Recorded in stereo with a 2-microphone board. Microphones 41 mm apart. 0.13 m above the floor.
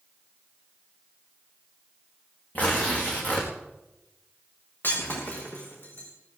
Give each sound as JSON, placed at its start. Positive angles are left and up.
{"t": 2.5, "sound": "tearing paper", "side_deg": 35, "distance_m": 4.5}
{"t": 4.8, "sound": "breaking glass", "side_deg": 55, "distance_m": 5.5}